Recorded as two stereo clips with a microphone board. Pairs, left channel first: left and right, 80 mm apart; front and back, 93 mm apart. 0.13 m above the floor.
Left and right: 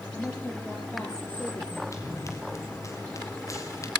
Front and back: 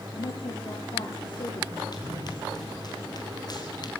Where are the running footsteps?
40° left, 5.5 m; by 3.9 s 45° left, 4 m.